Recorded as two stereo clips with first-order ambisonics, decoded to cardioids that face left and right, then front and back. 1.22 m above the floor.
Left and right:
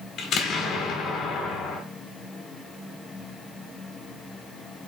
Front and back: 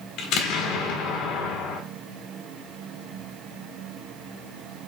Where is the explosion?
35° left, 1.6 m.